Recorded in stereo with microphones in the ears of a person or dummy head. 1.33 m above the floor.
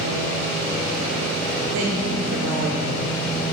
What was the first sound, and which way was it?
A woman speaking, 80° right.